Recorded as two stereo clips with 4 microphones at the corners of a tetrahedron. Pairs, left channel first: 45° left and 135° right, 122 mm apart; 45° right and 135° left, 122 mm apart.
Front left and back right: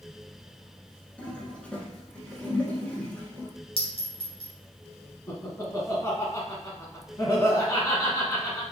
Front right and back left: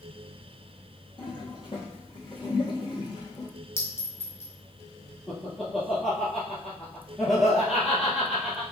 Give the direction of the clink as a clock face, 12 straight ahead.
11 o'clock.